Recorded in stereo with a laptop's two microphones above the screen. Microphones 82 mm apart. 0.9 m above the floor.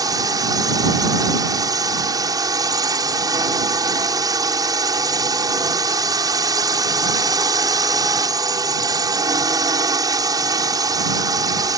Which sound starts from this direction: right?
A drone, at 0.0 s.